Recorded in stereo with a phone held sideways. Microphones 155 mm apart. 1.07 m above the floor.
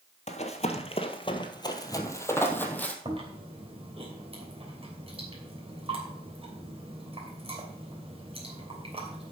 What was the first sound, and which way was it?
Running footsteps, 45° left (ahead or behind).